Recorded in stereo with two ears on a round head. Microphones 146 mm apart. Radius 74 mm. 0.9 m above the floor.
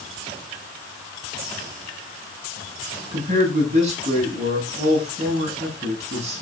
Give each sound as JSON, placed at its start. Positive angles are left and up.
{"t": 3.1, "sound": "a man speaking", "side_deg": -40, "distance_m": 7.5}